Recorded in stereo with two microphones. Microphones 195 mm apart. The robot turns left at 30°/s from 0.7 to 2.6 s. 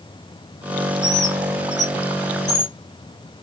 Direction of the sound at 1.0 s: 5° right (ahead or behind).